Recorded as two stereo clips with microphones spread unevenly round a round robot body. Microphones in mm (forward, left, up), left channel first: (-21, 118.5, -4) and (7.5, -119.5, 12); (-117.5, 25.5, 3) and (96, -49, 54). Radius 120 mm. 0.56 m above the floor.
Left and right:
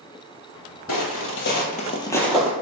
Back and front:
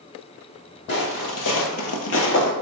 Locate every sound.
0.9 s footsteps: 115° left, 1.0 m; by 2.5 s 160° right, 0.7 m